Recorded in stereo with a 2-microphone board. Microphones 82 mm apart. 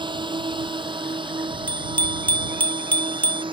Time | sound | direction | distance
0.0 | a drone | 70° right (ahead or behind) | ?
1.7 | a bicycle bell | 20° left (ahead or behind) | ?